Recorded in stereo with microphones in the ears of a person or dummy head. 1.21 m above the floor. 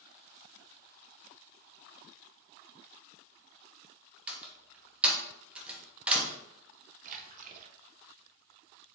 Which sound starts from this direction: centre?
A door slam, at 4.3 s.